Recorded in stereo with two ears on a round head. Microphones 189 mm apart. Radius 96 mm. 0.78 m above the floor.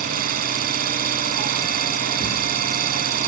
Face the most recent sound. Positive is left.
turn(degrees=-40)  # may be behind; listen again after turning